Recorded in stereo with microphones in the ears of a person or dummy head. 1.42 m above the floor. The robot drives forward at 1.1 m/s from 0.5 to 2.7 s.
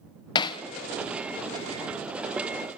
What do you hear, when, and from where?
0.3 s hammering: 30° left (ahead or behind), 0.6 m; by 0.6 s 35° left (ahead or behind), 0.5 m